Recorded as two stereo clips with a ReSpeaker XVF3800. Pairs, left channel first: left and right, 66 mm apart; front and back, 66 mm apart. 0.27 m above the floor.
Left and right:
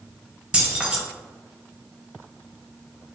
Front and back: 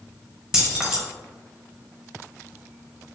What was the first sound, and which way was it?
Keys jangling, 125° right.